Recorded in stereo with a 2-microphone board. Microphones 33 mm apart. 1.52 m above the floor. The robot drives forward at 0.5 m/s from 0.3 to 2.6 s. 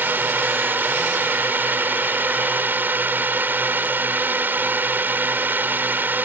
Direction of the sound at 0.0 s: 85° right.